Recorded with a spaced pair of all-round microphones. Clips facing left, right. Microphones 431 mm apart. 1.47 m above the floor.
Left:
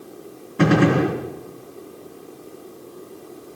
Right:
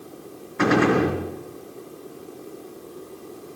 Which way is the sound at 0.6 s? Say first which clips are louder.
Left 2 dB; 50° left (ahead or behind).